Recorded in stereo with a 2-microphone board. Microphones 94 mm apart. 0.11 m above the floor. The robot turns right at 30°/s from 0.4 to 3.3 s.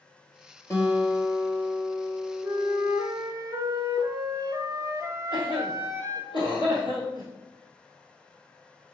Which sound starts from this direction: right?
A flute, at 2.4 s.